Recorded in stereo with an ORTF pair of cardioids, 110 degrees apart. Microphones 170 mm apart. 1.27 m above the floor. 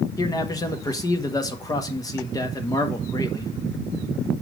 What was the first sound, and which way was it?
A man speaking, 20° left.